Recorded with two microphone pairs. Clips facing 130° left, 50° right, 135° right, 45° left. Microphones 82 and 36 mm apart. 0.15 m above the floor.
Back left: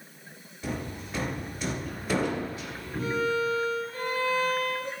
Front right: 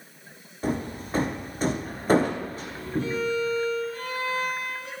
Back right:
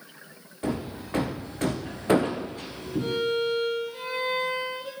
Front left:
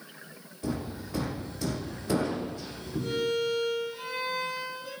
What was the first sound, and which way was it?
Hammering, 100° right.